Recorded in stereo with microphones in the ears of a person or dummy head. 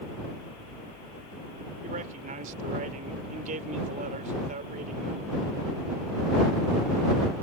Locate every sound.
1.8 s a man speaking: 45° right (ahead or behind)